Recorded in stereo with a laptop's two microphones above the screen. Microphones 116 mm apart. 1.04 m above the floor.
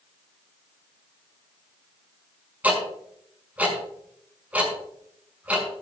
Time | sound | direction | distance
2.6 | ticking | 15° right (ahead or behind) | 5.5 m